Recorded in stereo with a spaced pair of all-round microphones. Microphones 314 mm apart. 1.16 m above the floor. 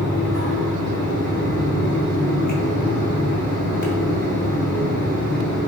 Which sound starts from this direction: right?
A fan, at 0.0 s.